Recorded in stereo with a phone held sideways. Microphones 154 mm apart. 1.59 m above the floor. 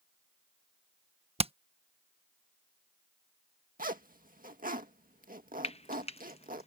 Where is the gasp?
No gasp in this recording.